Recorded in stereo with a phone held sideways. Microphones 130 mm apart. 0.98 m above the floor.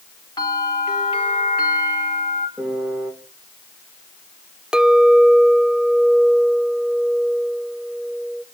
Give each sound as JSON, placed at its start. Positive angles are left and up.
{"t": 0.4, "sound": "a bell", "side_deg": 35, "distance_m": 4.0}
{"t": 2.6, "sound": "a piano", "side_deg": -5, "distance_m": 3.0}
{"t": 4.7, "sound": "a clink", "side_deg": -5, "distance_m": 0.6}